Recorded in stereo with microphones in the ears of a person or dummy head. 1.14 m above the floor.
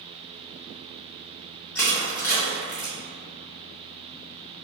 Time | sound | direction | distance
1.8 | crushing | 15° left (ahead or behind) | 1.5 m